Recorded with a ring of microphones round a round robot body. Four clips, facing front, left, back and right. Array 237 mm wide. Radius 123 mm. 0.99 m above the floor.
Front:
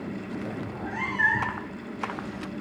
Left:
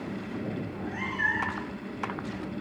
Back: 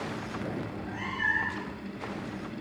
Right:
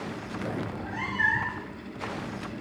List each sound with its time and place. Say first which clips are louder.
0.7 s a cat meowing: right 1 dB, front 4 dB; 20° right, 3.5 m